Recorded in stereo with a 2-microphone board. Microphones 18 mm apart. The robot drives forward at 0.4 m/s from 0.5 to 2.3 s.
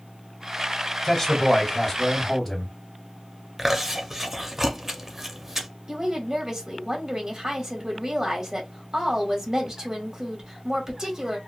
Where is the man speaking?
10° left (ahead or behind), 1.2 m.